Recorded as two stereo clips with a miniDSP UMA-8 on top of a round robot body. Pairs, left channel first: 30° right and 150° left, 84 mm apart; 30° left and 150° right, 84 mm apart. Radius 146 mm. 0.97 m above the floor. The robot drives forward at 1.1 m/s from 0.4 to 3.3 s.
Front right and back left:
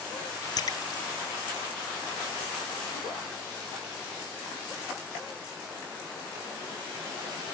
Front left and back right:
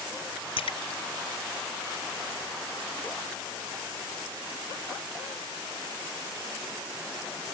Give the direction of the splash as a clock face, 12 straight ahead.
12 o'clock.